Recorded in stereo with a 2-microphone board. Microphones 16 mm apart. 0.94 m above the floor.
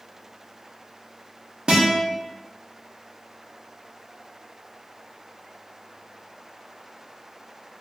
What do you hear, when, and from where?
1.7 s a guitar: 60° right (ahead or behind), 0.7 m